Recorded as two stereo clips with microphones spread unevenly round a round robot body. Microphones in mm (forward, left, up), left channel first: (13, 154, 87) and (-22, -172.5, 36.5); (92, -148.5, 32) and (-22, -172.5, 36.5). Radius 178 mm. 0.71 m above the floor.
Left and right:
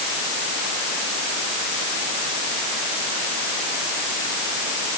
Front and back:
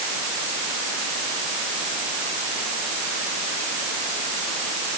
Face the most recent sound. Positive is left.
No sound to turn to.